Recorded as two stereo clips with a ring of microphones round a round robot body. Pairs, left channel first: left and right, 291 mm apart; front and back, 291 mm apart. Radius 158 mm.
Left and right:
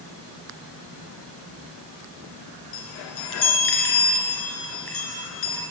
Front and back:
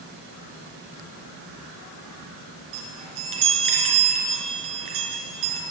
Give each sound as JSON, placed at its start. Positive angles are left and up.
{"t": 2.7, "sound": "a chime", "azimuth_deg": 145, "distance_m": 3.0}